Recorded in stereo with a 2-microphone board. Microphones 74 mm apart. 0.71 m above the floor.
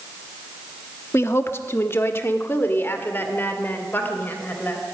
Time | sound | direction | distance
1.1 | a woman speaking | 35° left (ahead or behind) | 1.2 m